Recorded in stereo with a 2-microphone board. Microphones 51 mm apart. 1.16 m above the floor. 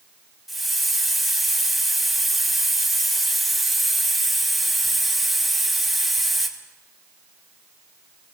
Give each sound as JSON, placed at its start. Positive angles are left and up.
{"t": 0.5, "sound": "a hiss", "side_deg": -5, "distance_m": 2.0}